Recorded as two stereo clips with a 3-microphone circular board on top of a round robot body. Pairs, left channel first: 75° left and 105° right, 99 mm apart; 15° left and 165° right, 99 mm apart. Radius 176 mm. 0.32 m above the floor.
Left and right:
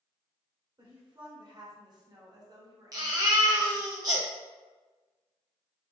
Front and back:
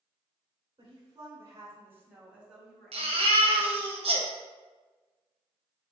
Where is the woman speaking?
130° right, 2.0 m; by 3.9 s 45° right, 1.8 m.